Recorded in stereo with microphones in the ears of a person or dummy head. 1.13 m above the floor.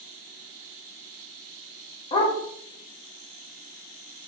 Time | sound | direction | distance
2.1 | a dog barking | 30° left (ahead or behind) | 0.7 m